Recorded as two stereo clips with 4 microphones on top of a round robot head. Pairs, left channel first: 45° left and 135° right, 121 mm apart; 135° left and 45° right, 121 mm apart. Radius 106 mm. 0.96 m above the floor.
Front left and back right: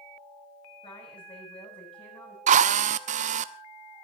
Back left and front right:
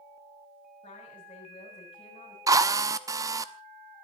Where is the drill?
110° right, 0.9 m.